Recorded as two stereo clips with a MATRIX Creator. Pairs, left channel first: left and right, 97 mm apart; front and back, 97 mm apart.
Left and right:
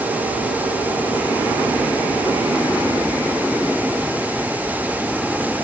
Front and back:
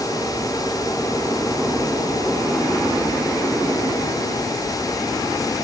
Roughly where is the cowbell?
I don't hear a cowbell.